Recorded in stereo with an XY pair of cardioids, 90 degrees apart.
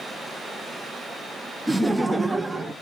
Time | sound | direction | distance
1.7 | laughter | 10° right | 0.5 m